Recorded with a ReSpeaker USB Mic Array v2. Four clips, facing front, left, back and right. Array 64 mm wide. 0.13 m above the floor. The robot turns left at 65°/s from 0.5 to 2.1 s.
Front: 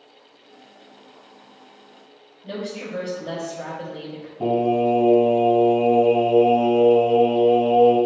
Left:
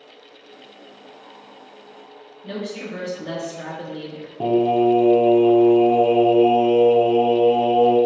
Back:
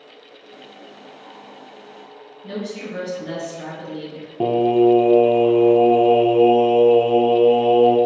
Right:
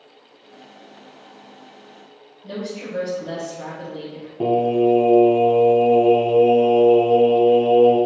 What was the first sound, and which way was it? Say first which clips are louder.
A woman speaking: even, back 1 dB; 100° left.